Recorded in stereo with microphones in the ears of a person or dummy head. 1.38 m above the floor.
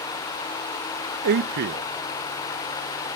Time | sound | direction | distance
1.2 | a man speaking | 65° right (ahead or behind) | ?